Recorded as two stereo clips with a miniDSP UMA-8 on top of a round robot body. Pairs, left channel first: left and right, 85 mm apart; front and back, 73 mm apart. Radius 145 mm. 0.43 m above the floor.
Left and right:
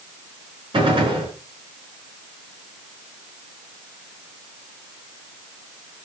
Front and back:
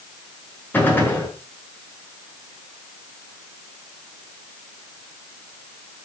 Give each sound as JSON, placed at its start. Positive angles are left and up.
{"t": 0.7, "sound": "a gunshot", "azimuth_deg": -65, "distance_m": 6.0}